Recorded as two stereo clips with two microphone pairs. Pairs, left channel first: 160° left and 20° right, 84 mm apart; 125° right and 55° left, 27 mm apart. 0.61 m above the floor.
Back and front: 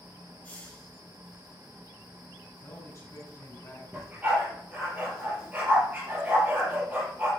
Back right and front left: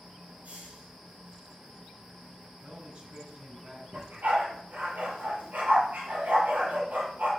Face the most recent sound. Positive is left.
turn(degrees=50)